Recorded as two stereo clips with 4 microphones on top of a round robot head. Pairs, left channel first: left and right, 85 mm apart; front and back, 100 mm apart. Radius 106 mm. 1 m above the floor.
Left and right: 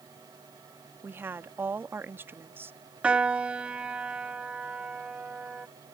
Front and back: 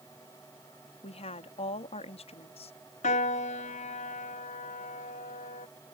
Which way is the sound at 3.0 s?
15° right.